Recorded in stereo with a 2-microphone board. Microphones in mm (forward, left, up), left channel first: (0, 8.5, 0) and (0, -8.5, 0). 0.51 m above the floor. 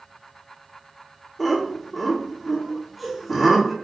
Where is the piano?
No piano in this recording.